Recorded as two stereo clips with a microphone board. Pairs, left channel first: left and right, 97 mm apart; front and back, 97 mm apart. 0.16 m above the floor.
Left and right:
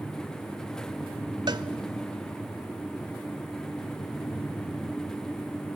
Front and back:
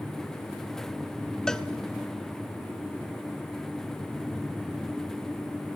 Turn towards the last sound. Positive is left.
turn(degrees=-80)